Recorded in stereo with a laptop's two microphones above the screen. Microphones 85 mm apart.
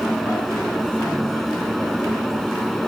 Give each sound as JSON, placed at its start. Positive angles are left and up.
{"t": 0.0, "sound": "a fan", "side_deg": 0}